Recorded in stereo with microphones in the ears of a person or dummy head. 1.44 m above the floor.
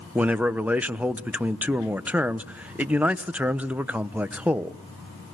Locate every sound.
0.1 s a man speaking: 5° right (ahead or behind), 1.0 m